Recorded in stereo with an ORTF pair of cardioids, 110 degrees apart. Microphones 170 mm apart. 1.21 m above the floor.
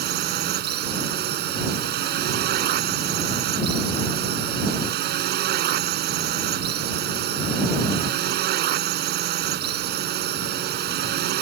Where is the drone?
65° right.